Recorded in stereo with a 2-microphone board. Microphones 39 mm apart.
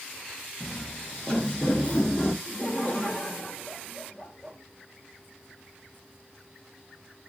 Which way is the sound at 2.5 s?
25° left (ahead or behind).